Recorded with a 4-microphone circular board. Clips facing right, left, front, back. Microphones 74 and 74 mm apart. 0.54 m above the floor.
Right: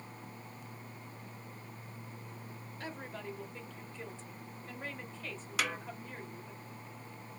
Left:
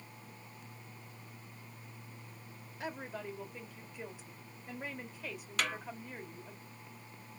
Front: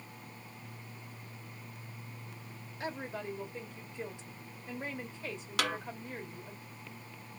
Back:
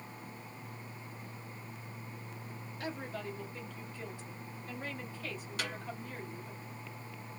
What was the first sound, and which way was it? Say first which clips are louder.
A woman speaking: left 2 dB, front 2 dB; 30° left.